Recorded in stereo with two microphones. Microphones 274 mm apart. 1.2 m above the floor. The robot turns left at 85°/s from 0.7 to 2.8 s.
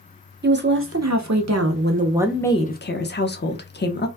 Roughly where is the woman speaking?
Ahead right.